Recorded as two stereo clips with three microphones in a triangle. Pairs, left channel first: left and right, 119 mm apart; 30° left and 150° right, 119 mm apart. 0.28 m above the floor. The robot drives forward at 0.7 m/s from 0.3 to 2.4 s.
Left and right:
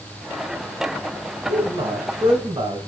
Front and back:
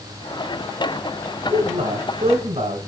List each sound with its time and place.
1.5 s a man speaking: 130° right, 2 m; by 2.8 s 145° right, 2.5 m